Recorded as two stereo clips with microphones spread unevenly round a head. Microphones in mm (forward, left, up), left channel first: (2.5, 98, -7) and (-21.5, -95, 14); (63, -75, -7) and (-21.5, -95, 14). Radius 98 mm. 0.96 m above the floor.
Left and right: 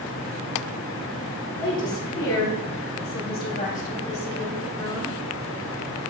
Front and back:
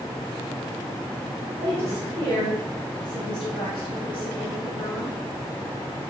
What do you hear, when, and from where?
1.6 s a woman speaking: 85° left, 1.9 m; by 5.2 s 15° left, 2.5 m